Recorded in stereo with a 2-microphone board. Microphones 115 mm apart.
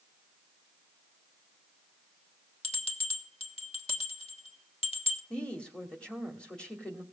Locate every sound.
2.6 s a bell: 60° left (ahead or behind), 1.4 m
5.3 s a woman speaking: 10° left (ahead or behind), 2 m